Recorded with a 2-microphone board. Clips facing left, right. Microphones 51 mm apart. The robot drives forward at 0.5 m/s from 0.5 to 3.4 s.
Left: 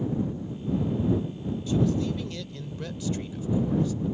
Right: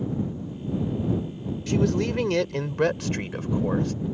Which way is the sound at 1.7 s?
75° right (ahead or behind).